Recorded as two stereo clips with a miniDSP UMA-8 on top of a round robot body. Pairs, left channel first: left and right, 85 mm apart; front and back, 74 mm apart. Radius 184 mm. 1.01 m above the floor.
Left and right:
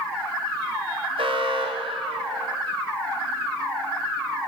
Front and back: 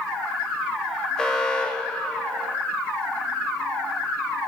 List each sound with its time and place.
1.2 s an alarm: 80° right, 2.5 m